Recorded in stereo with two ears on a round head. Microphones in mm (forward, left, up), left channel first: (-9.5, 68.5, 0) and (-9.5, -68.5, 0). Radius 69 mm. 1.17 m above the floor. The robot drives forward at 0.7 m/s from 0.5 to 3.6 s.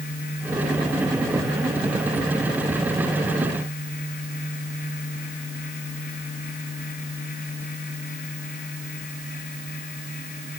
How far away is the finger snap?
I don't hear a finger snap.